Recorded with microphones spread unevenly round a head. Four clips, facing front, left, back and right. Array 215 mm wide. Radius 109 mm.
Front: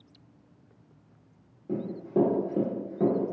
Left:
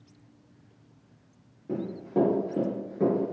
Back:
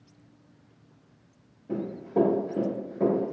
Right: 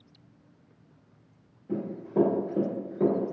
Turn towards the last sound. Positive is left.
turn(degrees=-95)